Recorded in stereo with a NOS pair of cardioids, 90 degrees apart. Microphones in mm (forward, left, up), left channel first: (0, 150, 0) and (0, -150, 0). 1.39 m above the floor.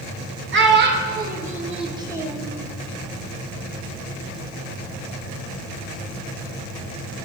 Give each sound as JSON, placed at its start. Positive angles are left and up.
{"t": 0.5, "sound": "a child speaking", "azimuth_deg": -40, "distance_m": 1.5}